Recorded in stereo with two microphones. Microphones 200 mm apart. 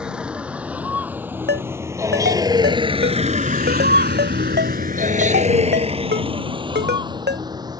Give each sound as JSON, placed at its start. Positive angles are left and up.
{"t": 0.0, "sound": "a vehicle", "side_deg": -5}
{"t": 1.5, "sound": "a ringtone", "side_deg": -60}